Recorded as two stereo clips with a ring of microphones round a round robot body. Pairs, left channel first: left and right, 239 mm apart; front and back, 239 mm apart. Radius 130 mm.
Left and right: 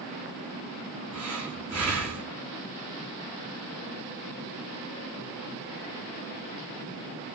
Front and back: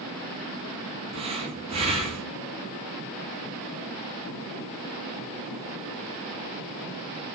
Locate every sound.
1.1 s breathing: 110° right, 2.5 m